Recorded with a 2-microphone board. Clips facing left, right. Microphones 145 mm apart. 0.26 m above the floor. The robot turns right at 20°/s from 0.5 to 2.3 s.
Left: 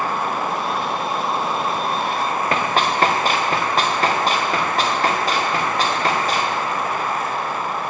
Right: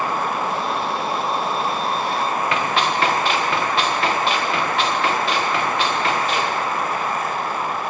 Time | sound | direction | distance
2.5 | running footsteps | 40° left (ahead or behind) | 1.6 m